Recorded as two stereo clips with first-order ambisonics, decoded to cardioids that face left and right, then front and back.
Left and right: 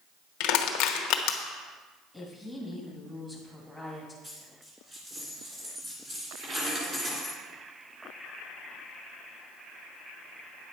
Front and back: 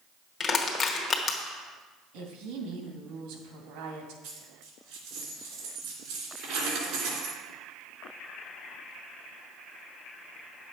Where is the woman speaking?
Straight behind, 2.5 m.